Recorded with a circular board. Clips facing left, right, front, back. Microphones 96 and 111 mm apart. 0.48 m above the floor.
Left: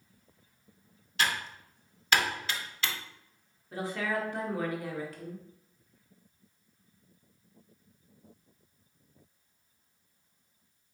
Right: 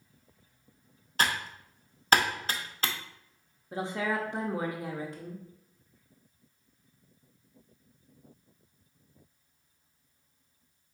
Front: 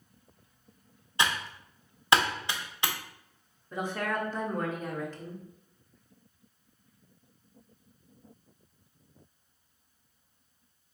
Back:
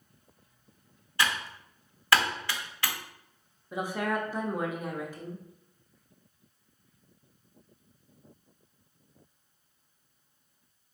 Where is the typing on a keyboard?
60° right, 0.7 m.